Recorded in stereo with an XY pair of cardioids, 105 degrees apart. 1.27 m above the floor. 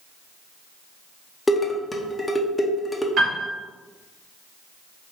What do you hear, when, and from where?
1.5 s dishes clattering: 15° left, 0.8 m
3.2 s a piano: 60° right, 1.5 m